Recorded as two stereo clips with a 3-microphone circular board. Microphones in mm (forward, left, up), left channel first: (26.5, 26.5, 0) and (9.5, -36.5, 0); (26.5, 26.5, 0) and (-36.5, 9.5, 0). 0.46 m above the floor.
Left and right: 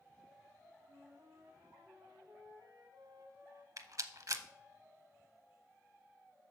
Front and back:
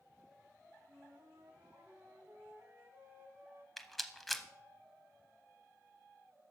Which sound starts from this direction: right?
A rattle, at 3.8 s.